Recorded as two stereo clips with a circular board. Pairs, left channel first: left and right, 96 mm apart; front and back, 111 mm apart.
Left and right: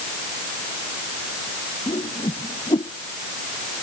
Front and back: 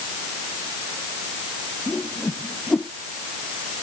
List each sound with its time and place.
1.9 s a whoosh: 80° left